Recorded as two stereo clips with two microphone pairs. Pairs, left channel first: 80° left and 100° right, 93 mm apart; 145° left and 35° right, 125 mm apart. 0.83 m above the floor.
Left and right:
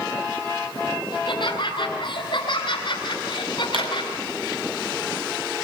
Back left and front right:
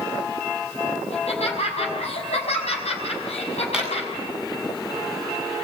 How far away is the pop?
About 9.5 m.